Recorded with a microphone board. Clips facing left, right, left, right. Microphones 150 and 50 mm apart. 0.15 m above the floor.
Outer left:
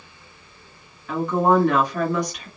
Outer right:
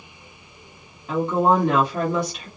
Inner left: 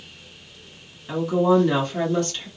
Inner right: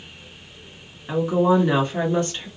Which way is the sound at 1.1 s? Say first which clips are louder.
Even, even; 30° right (ahead or behind).